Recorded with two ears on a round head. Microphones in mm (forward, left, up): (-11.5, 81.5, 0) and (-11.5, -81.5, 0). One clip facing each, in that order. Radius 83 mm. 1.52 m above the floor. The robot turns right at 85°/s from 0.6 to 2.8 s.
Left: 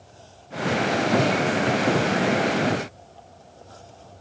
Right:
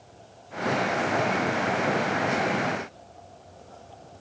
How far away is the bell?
I don't hear a bell.